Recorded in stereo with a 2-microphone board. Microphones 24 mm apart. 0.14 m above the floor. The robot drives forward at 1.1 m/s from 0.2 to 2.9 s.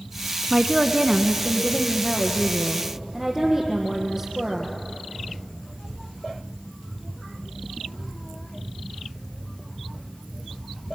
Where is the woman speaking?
5° right (ahead or behind), 1.1 m; by 4.8 s centre (ahead or behind), 2.5 m.